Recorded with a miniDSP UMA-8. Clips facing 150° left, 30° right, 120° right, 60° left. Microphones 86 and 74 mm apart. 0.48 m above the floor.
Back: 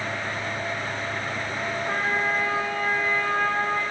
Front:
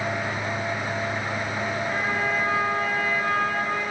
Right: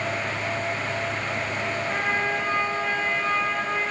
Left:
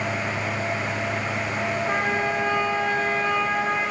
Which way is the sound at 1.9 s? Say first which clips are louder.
Back 3 dB, left 1 dB; 95° left.